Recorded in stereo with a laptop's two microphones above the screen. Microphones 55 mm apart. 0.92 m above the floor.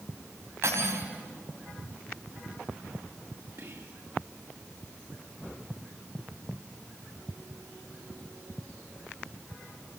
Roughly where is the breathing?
No breathing in this recording.